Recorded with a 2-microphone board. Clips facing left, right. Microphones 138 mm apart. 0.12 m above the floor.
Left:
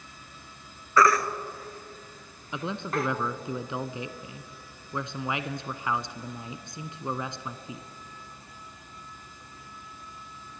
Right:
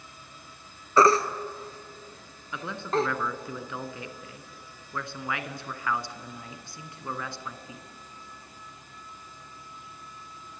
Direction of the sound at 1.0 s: 30° right (ahead or behind).